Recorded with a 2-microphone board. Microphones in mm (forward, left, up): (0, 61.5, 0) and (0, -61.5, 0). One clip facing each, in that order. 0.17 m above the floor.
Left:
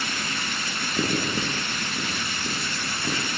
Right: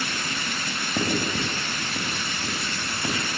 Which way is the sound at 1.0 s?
35° right (ahead or behind).